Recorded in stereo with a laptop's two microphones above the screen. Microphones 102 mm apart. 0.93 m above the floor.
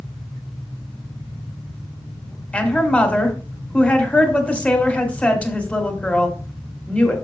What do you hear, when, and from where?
2.5 s a woman speaking: 10° left (ahead or behind), 3 m